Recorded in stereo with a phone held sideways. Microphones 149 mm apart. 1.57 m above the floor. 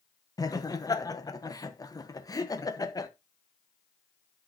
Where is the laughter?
25° left (ahead or behind), 1.1 m.